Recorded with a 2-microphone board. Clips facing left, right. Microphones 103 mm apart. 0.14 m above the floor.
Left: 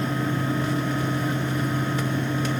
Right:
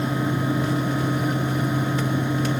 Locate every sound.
Only background noise.